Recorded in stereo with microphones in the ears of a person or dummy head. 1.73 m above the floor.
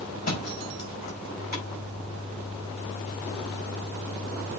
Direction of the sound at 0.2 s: 45° left (ahead or behind).